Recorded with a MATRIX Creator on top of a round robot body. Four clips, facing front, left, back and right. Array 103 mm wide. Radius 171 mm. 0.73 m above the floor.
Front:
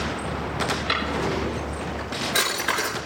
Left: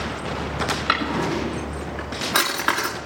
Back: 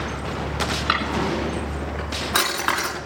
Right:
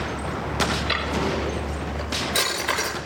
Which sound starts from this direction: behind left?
A drawer, at 0.9 s.